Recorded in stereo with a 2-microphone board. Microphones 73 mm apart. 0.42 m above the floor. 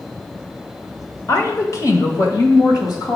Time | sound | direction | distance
1.3 | a woman speaking | 40° left (ahead or behind) | 1.2 m